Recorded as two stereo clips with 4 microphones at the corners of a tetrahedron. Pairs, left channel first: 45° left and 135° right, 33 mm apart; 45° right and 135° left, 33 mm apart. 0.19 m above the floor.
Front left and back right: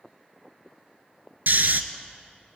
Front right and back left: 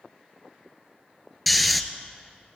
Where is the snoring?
135° right, 0.8 m.